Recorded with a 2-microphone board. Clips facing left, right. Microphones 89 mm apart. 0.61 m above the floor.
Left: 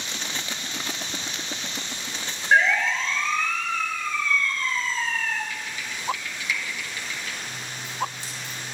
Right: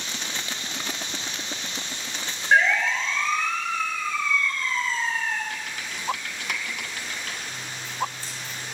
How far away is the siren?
About 3.5 m.